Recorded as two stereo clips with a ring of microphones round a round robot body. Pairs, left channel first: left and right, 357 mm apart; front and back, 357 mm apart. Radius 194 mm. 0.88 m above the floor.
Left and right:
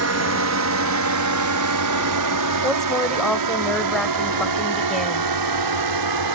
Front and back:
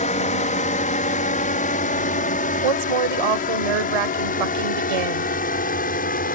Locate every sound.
0.0 s a drone: 65° right; by 6.3 s 70° right
2.6 s a woman speaking: straight behind